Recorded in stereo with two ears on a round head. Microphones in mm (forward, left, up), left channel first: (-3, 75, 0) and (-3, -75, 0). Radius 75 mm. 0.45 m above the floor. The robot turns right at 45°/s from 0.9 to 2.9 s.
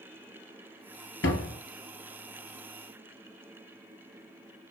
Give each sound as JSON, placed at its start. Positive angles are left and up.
{"t": 1.2, "sound": "a door slam", "side_deg": 75, "distance_m": 3.0}